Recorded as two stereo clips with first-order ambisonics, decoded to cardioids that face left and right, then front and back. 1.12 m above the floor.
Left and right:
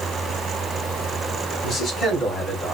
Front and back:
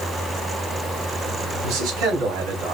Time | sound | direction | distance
1.6 | a man speaking | 150° left | 2.5 m